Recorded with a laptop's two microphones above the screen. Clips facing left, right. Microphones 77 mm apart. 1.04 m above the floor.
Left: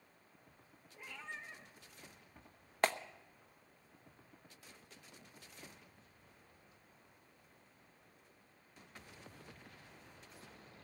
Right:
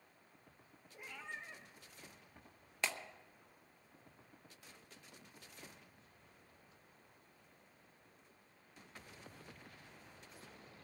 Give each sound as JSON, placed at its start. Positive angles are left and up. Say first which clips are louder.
{"t": 0.9, "sound": "a cat meowing", "louder": "even", "side_deg": -15, "distance_m": 3.0}
{"t": 2.8, "sound": "a clap", "louder": "left 8 dB", "side_deg": 50, "distance_m": 0.9}